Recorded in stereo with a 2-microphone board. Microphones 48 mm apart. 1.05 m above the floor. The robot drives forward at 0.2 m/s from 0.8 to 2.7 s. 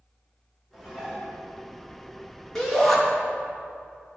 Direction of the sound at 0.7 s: Centre (ahead or behind).